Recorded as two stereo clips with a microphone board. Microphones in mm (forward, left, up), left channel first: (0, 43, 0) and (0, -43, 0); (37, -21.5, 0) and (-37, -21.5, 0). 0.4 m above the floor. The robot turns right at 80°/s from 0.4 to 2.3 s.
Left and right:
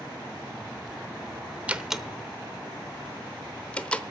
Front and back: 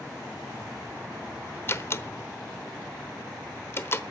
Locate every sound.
1.7 s a door slam: 25° right, 0.9 m; by 4.0 s 25° left, 0.9 m